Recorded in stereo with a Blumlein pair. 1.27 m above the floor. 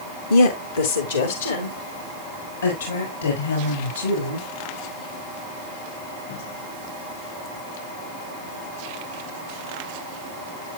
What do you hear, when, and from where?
0.3 s a woman speaking: 70° left, 1.0 m; by 4.5 s 80° left, 7.5 m